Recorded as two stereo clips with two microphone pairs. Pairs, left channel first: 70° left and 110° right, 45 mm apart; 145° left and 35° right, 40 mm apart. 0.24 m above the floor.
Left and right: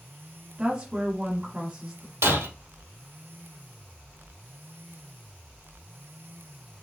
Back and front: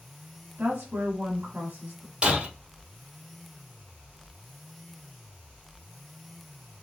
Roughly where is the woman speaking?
Ahead right.